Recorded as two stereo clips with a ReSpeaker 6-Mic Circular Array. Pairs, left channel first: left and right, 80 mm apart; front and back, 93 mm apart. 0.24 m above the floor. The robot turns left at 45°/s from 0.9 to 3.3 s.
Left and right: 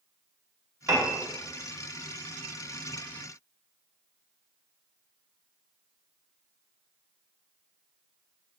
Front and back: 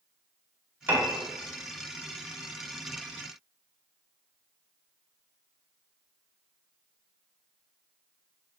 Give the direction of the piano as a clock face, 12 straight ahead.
4 o'clock.